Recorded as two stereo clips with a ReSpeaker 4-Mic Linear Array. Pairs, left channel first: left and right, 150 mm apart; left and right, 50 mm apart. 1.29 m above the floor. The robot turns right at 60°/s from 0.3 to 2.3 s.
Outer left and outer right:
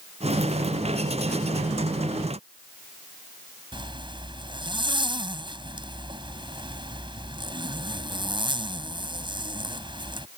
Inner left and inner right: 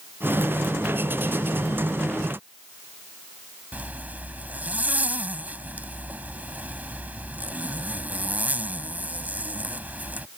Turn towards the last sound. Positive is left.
turn(degrees=-30)  # may be behind; listen again after turning